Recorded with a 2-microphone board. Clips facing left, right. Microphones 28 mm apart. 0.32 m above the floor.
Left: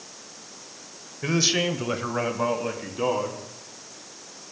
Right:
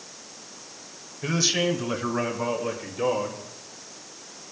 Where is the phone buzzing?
No phone buzzing in this recording.